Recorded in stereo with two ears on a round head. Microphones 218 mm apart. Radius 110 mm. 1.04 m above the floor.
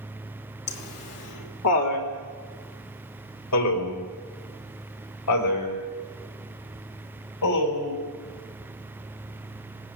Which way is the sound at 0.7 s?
65° left (ahead or behind).